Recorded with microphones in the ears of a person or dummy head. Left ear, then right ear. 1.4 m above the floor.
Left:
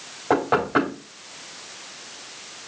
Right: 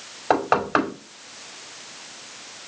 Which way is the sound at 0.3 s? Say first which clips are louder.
Even; 55° right (ahead or behind).